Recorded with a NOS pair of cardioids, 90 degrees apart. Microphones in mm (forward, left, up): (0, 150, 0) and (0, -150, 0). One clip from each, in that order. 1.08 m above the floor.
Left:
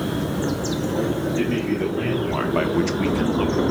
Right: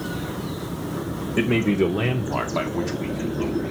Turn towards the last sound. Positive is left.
turn(degrees=60)